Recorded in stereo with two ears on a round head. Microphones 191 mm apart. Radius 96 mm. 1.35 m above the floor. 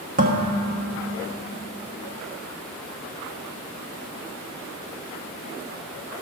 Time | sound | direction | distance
0.2 | dishes clattering | 40° right (ahead or behind) | 1.3 m